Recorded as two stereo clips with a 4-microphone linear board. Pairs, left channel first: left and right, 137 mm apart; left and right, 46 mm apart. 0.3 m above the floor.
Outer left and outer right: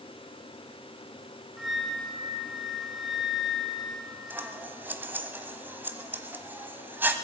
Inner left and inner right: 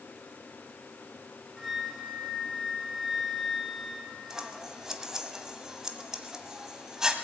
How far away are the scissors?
About 1.0 m.